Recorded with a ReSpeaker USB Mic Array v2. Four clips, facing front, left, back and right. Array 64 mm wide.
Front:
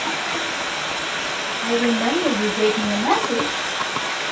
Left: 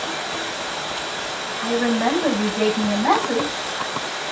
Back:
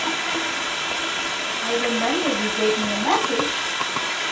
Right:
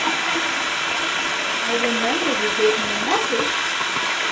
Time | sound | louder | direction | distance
0.0 | running water | right 5 dB, even | 85° right | 0.8 m
1.6 | a woman speaking | left 3 dB, front 3 dB | 75° left | 6 m